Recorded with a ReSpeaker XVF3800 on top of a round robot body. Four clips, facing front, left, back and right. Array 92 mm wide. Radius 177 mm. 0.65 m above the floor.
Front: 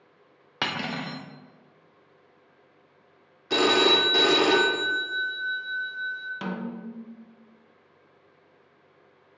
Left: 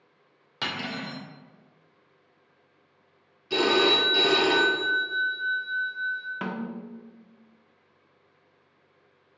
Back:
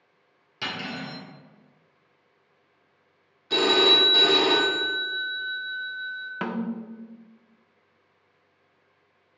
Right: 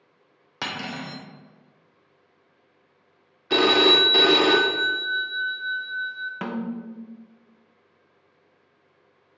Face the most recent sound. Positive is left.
turn(degrees=-170)